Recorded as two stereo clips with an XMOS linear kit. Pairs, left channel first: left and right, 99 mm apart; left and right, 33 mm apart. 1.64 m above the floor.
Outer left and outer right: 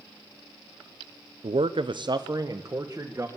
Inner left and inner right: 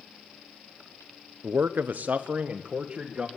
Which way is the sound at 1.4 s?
75° right (ahead or behind).